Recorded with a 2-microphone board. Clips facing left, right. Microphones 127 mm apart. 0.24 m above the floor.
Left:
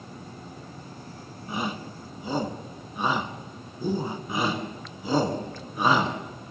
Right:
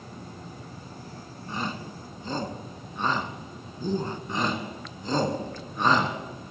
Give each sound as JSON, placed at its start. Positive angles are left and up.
{"t": 1.5, "sound": "a shout", "side_deg": 10, "distance_m": 2.0}
{"t": 4.3, "sound": "a shout", "side_deg": 10, "distance_m": 3.5}